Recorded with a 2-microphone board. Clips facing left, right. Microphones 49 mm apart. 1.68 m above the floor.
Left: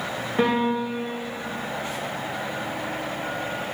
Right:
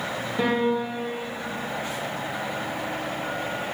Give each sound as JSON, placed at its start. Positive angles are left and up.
{"t": 0.4, "sound": "a piano", "side_deg": 45, "distance_m": 2.0}